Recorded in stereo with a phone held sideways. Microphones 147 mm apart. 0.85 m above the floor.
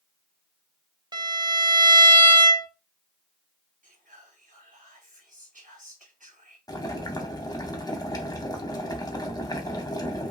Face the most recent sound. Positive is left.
turn(degrees=25)  # may be behind; listen again after turning